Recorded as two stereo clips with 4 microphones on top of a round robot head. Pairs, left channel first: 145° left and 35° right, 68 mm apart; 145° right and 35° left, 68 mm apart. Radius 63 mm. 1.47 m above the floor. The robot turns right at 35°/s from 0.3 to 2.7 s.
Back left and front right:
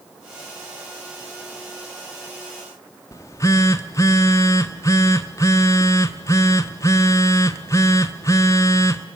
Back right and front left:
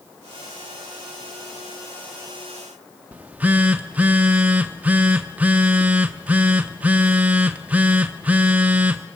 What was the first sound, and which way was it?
A phone buzzing, 100° left.